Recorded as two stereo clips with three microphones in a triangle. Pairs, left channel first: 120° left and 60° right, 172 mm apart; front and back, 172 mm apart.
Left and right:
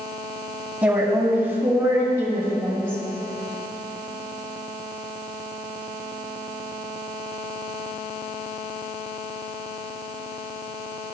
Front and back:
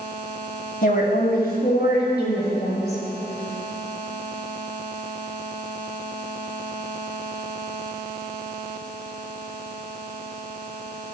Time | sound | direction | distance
0.8 | a woman speaking | 20° left | 2.5 m